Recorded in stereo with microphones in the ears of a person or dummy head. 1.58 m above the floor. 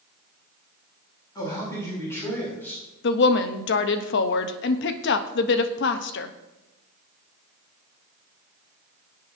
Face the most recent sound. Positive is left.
turn(degrees=65)  # may be behind; listen again after turning